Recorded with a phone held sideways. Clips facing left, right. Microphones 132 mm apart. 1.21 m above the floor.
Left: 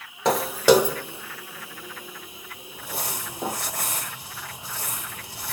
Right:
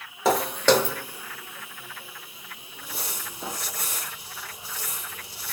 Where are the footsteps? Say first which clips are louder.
Left 2 dB; 5° right (ahead or behind), 1.2 m; by 3.6 s 55° left (ahead or behind), 2.5 m.